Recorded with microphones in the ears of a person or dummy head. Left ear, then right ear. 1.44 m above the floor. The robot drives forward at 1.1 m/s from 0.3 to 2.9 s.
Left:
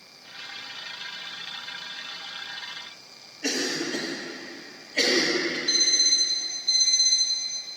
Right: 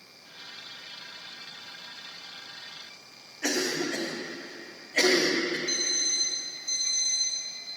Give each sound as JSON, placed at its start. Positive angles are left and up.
{"t": 3.4, "sound": "a cough", "side_deg": -50, "distance_m": 1.5}
{"t": 5.7, "sound": "an alarm clock", "side_deg": -50, "distance_m": 3.5}